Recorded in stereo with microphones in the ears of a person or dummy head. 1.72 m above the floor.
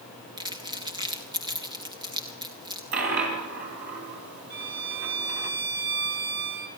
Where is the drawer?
No drawer in this recording.